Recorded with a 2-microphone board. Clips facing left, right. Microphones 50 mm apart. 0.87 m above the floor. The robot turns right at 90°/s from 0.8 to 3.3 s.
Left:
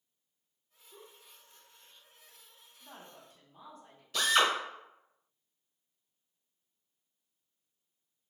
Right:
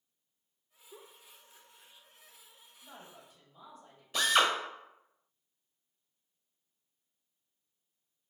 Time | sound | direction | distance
0.9 | a giggle | 45° right (ahead or behind) | 0.6 m
2.8 | a woman speaking | 95° left | 2 m
4.1 | a drill | 15° right (ahead or behind) | 1.3 m